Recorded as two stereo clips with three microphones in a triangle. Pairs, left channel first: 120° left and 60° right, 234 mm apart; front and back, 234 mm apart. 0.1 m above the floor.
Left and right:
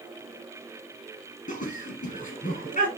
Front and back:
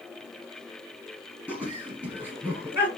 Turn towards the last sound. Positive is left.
turn(degrees=105)